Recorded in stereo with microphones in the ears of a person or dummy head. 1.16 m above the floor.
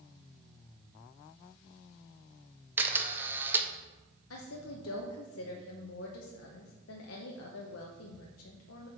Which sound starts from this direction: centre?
A camera shutter, at 2.8 s.